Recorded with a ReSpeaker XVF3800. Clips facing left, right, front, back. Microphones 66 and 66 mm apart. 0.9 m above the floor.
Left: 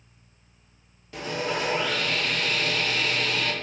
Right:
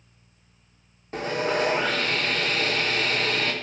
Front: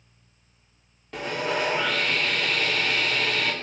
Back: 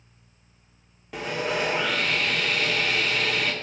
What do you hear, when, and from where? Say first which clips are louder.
1.1 s sawing: right 4 dB, even; 95° right, 0.9 m